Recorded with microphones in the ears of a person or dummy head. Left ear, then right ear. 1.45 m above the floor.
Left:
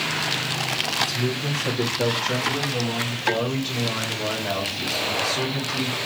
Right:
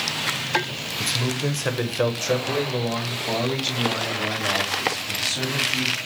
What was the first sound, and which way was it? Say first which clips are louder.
A man speaking: even; 25° right (ahead or behind).